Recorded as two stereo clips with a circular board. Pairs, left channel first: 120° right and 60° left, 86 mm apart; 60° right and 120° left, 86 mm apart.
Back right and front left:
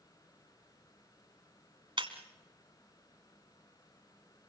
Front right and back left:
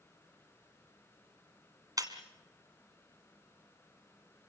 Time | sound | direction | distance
2.0 | breaking glass | 75° left | 1.7 m